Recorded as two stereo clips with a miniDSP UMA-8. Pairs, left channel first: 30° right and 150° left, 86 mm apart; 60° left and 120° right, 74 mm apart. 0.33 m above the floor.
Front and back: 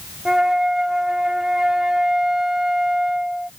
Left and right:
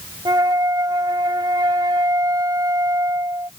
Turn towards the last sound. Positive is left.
turn(degrees=-125)